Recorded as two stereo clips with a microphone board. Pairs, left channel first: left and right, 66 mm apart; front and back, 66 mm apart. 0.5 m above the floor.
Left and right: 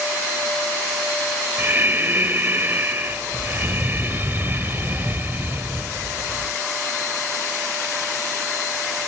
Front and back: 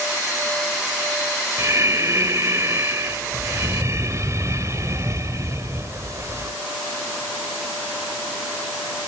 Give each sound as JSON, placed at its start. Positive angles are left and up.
{"t": 1.6, "sound": "breathing", "azimuth_deg": -145, "distance_m": 2.0}